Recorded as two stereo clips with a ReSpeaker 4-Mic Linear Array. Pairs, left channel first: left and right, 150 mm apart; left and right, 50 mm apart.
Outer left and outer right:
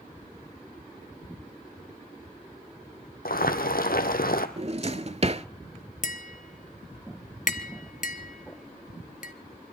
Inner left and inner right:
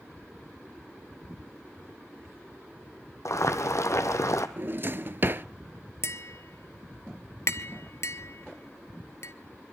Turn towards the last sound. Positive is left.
turn(degrees=60)  # may be behind; listen again after turning